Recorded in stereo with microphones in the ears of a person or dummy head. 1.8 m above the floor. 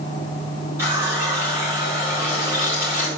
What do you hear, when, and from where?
0.8 s a running tap: 15° right (ahead or behind), 2.5 m